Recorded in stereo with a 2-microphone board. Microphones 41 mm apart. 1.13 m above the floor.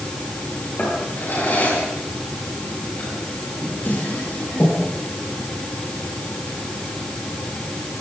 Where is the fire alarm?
I don't hear a fire alarm.